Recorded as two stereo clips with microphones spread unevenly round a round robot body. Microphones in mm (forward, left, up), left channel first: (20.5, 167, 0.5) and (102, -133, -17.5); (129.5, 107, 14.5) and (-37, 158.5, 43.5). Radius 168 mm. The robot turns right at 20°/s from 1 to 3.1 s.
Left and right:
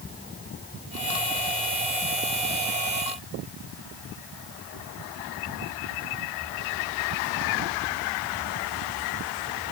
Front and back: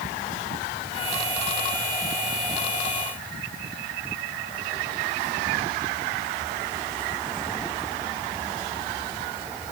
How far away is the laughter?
No laughter in this recording.